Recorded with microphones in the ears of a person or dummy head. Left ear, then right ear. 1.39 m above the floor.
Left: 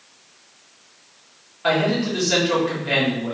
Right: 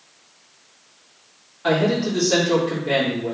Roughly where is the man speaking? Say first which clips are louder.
Even; centre.